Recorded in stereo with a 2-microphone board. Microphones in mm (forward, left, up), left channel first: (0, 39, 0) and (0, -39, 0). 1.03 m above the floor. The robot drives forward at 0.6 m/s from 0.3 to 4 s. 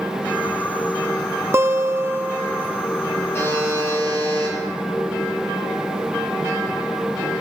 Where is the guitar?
30° right (ahead or behind), 0.6 m; by 2.8 s 20° right (ahead or behind), 0.8 m.